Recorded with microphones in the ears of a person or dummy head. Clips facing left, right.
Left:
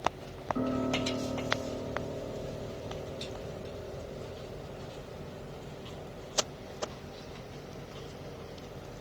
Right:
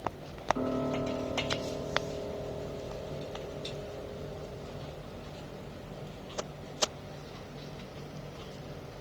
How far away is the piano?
About 6.5 m.